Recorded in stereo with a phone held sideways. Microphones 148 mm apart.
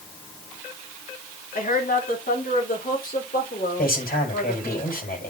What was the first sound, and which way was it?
A woman speaking, 75° left (ahead or behind).